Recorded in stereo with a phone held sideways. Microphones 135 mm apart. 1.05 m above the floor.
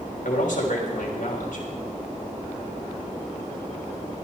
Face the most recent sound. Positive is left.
turn(degrees=75)  # may be behind; listen again after turning